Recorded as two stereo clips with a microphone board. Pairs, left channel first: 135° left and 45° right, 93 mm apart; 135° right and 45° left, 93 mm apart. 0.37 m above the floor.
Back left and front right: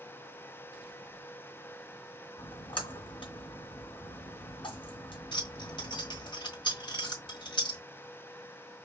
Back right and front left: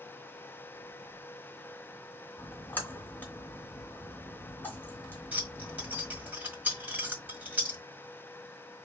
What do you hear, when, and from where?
2.4 s a splash: 155° left, 2 m
5.3 s keys jangling: 115° left, 1.5 m